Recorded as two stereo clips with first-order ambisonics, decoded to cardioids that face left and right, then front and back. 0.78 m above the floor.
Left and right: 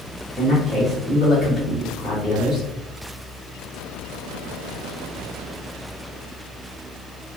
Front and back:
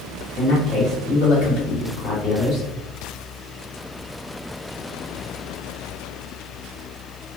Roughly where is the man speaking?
Ahead left.